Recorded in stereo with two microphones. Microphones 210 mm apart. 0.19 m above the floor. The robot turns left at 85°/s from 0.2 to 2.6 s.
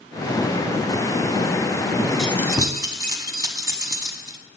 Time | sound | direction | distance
2.2 | keys jangling | centre (ahead or behind) | 0.8 m